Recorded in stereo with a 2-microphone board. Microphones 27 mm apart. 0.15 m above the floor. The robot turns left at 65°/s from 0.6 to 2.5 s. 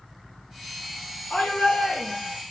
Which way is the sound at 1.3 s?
105° left.